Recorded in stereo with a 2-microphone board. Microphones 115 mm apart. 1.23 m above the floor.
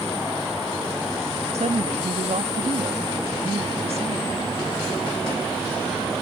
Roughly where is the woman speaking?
Right.